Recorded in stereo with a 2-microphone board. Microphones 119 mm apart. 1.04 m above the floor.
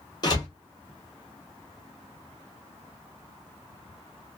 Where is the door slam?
35° left (ahead or behind), 1.2 m.